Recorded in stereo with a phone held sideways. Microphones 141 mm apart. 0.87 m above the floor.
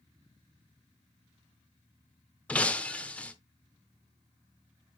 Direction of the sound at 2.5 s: 10° left (ahead or behind).